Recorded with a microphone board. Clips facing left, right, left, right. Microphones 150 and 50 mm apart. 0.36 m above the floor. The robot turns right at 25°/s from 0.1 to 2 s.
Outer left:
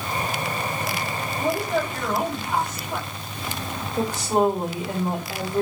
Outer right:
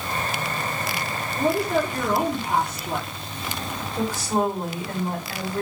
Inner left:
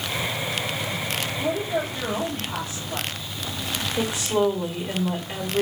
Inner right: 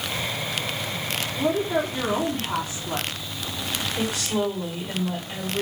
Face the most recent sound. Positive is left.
turn(degrees=20)  # may be behind; listen again after turning